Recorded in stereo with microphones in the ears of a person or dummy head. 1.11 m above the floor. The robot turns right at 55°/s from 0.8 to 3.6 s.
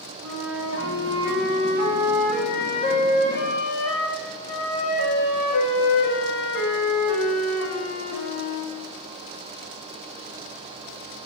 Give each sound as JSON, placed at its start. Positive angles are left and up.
{"t": 0.2, "sound": "a flute", "azimuth_deg": -85, "distance_m": 1.8}